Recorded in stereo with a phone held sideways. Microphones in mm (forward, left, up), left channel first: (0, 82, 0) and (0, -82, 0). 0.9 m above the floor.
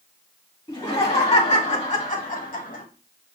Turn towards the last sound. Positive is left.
turn(degrees=45)  # may be behind; listen again after turning